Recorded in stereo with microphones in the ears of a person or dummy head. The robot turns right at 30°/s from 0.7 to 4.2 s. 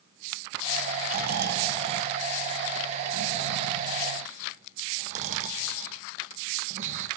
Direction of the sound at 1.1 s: 45° right (ahead or behind).